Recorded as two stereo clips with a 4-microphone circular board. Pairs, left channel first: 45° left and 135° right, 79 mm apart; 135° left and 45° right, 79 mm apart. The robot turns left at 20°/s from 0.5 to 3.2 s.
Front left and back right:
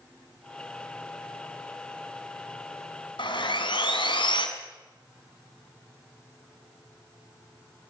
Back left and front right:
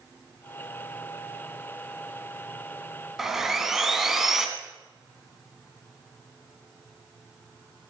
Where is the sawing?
40° left, 1.7 m.